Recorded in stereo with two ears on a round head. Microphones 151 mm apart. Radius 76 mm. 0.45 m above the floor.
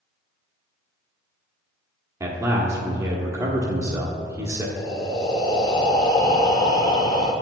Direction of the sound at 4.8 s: 25° left (ahead or behind).